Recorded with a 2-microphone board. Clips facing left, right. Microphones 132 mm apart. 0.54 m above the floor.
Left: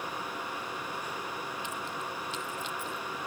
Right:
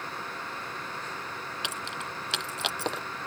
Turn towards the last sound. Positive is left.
turn(degrees=-80)